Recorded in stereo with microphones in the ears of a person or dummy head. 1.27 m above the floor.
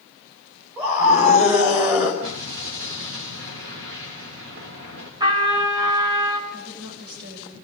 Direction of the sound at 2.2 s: 70° right (ahead or behind).